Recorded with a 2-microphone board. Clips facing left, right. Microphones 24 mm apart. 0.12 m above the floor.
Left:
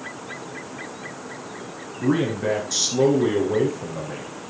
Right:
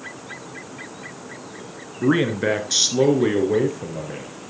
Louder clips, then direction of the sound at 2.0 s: Right 3 dB; 40° right (ahead or behind).